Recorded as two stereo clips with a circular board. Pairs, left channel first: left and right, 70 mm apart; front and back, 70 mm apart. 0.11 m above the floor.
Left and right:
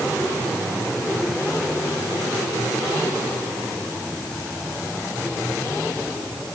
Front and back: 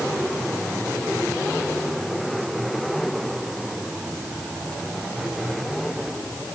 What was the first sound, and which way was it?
Only background noise.